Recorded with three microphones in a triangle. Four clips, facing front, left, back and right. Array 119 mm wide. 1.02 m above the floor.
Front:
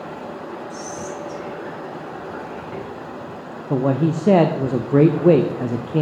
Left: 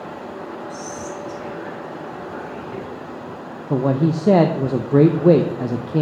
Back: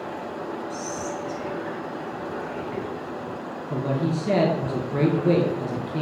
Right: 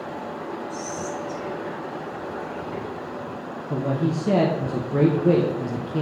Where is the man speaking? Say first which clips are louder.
Left 6 dB, front 7 dB; 50° left, 0.5 m.